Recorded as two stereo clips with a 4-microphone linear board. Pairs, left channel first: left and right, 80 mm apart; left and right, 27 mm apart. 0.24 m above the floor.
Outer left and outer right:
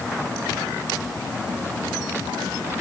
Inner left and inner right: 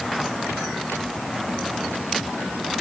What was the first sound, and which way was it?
Only background noise.